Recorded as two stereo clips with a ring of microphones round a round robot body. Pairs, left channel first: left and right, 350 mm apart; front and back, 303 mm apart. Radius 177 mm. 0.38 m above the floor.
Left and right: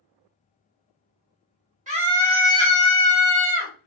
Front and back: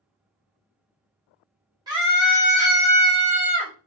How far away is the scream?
About 1.4 m.